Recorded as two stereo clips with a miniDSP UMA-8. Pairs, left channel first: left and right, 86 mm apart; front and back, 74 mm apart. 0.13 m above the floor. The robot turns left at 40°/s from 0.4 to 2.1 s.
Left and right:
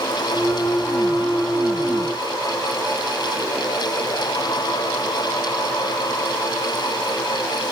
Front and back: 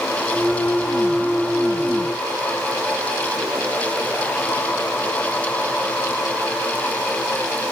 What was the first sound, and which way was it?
Only background noise.